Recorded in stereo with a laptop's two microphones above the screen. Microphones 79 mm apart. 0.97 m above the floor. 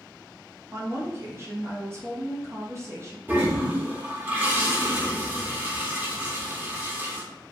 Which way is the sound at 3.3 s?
20° right (ahead or behind).